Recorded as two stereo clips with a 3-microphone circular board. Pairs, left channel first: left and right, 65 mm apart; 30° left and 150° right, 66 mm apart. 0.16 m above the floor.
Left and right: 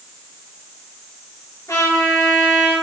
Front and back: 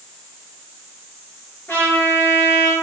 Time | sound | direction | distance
1.7 | a trumpet | 85° left | 3 m